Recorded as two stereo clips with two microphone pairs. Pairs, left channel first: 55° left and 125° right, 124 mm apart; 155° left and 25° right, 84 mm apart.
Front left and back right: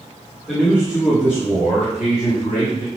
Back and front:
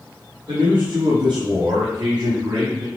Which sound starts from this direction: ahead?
A man speaking, at 0.5 s.